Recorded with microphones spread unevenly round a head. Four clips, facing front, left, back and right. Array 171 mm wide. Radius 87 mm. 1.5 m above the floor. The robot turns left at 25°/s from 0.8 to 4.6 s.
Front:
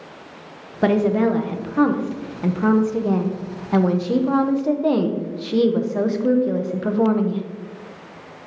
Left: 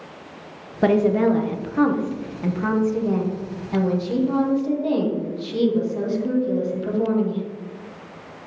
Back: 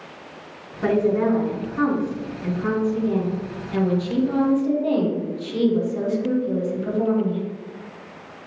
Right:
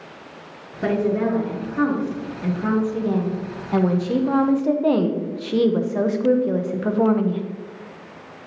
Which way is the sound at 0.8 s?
50° left.